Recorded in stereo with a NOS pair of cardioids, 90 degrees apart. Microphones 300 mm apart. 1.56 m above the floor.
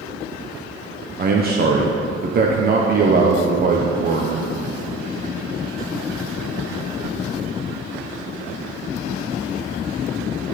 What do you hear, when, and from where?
1.2 s a man speaking: 30° right, 0.7 m